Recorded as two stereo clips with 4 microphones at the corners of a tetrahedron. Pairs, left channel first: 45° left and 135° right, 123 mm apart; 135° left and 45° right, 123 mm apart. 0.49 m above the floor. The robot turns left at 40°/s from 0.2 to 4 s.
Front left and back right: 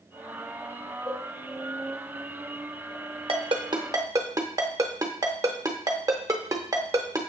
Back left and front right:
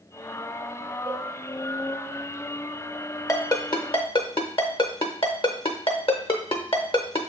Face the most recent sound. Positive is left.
turn(degrees=165)